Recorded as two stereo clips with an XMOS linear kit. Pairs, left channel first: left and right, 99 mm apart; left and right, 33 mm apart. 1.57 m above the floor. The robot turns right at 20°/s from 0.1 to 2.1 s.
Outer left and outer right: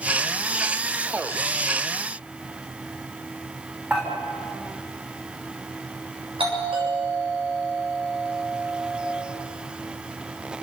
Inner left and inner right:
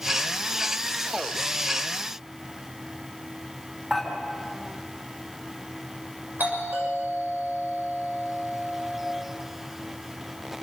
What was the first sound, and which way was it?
Dishes clattering, 15° right (ahead or behind).